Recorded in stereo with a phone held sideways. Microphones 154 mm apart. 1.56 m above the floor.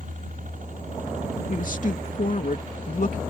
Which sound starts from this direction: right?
A helicopter, at 0.0 s.